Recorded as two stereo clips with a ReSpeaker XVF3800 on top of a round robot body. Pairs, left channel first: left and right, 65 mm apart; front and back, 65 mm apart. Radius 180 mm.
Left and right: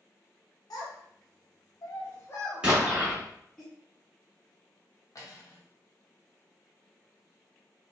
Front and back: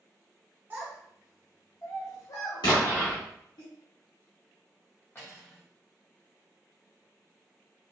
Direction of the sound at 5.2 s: 55° left.